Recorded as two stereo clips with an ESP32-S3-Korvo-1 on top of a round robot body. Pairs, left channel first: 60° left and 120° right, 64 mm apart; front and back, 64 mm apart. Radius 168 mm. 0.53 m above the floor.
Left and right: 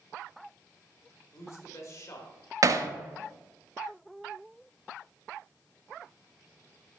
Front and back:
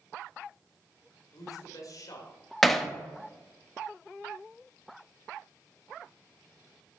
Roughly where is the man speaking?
Ahead left.